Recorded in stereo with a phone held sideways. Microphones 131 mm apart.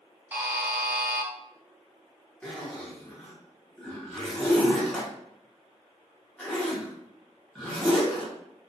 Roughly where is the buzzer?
Centre.